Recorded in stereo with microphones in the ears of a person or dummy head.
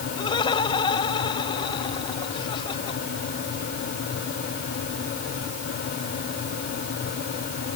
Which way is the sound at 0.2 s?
25° left (ahead or behind).